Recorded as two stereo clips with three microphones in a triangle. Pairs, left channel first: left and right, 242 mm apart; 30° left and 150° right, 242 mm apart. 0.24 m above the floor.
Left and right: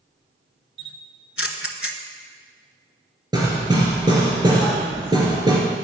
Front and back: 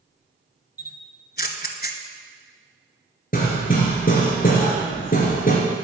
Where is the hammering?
20° right, 2.5 m.